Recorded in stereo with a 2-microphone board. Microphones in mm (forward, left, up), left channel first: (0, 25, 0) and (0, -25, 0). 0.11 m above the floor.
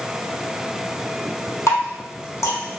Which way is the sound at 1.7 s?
70° left (ahead or behind).